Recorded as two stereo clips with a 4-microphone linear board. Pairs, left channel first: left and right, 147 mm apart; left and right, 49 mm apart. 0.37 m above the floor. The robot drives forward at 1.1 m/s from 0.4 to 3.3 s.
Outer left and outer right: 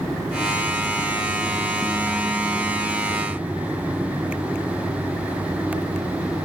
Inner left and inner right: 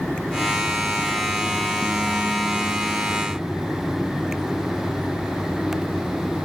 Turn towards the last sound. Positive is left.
No sound to turn to.